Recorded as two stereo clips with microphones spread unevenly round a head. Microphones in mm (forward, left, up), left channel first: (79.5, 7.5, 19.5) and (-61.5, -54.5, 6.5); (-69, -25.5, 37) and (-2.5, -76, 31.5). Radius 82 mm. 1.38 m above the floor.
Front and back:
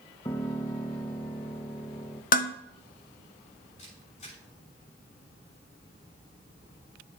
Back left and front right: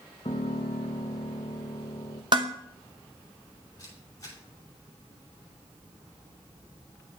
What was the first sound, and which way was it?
A piano, 95° left.